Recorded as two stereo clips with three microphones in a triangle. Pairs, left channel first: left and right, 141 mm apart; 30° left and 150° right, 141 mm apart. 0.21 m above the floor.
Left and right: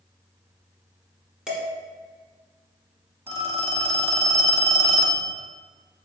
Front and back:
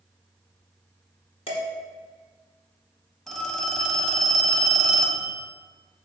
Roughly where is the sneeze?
I don't hear a sneeze.